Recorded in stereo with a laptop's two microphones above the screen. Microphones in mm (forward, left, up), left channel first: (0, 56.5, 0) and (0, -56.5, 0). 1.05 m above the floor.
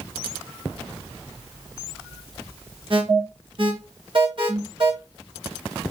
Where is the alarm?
50° right (ahead or behind), 1.1 m.